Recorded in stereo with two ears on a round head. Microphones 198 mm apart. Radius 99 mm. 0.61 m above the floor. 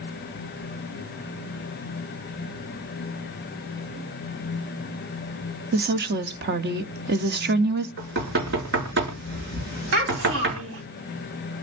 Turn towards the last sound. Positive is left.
turn(degrees=-65)  # may be behind; listen again after turning